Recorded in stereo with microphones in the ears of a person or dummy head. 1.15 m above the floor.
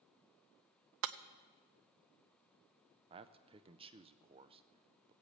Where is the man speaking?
25° right (ahead or behind), 0.6 m.